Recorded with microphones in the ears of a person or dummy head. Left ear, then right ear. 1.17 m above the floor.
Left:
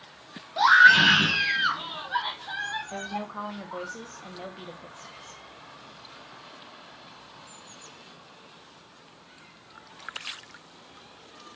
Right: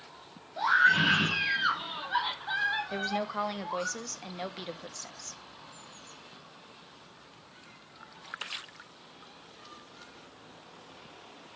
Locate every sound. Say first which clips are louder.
0.6 s a scream: left 8 dB; 50° left (ahead or behind), 1.8 m; by 3.9 s 25° right (ahead or behind), 4 m
2.9 s a woman speaking: right 2 dB; 80° right, 1.4 m